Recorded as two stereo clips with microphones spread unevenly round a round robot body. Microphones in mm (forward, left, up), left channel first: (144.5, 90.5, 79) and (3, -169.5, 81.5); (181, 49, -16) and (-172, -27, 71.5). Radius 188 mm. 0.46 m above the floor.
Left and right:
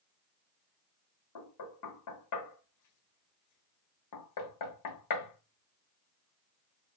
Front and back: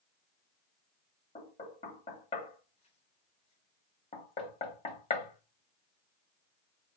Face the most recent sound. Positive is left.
turn(degrees=80)